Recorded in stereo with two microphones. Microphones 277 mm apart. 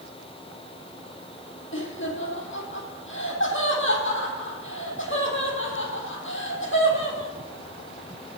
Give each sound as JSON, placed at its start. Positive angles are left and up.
{"t": 1.7, "sound": "laughter", "side_deg": 45, "distance_m": 4.0}